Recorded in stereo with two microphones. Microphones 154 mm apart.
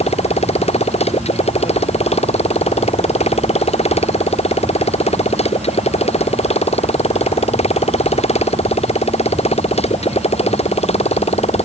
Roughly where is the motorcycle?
Left.